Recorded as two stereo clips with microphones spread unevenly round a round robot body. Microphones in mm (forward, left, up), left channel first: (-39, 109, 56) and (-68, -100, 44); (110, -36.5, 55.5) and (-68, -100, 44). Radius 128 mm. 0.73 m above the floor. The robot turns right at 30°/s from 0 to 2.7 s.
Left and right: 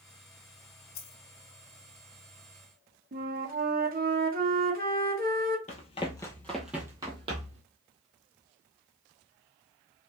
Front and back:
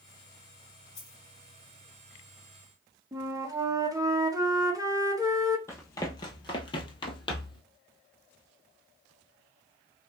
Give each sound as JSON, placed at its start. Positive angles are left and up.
{"t": 0.9, "sound": "a dropped coin", "azimuth_deg": 95, "distance_m": 1.5}
{"t": 3.1, "sound": "a flute", "azimuth_deg": -100, "distance_m": 1.1}
{"t": 5.7, "sound": "running footsteps", "azimuth_deg": 80, "distance_m": 0.8}